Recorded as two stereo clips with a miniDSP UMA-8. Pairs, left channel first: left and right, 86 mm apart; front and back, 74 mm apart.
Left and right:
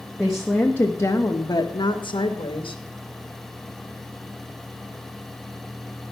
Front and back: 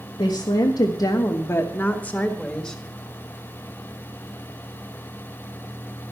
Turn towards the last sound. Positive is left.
turn(degrees=85)